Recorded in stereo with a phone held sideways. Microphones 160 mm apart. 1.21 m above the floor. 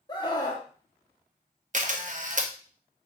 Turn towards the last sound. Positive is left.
turn(degrees=-50)  # may be behind; listen again after turning